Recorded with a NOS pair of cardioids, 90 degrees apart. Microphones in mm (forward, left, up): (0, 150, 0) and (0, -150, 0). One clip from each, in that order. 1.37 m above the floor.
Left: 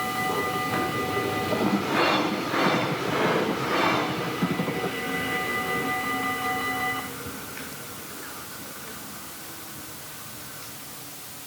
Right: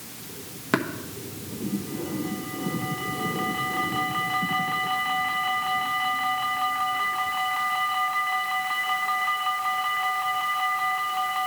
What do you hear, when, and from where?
0.7 s tapping: 60° right, 1.5 m